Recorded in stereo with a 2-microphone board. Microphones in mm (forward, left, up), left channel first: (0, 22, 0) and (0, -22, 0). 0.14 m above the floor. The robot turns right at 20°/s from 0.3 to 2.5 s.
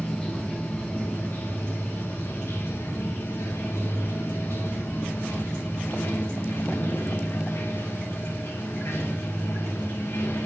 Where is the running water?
30° left, 1.5 m; by 10.5 s 75° left, 1.5 m.